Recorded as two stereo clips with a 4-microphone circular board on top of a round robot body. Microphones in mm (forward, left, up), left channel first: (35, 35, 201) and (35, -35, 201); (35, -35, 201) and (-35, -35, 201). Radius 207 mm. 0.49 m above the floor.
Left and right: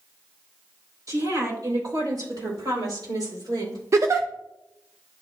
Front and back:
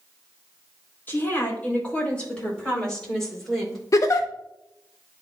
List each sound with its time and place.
1.1 s a woman speaking: 60° right, 3.5 m; by 3.8 s 90° right, 4.5 m
3.9 s a giggle: 45° right, 0.5 m